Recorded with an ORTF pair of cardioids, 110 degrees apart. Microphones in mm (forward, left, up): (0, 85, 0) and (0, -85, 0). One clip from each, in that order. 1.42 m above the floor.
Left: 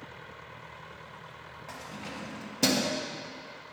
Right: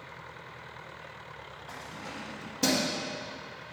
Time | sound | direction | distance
1.7 | keys jangling | 35° left | 2 m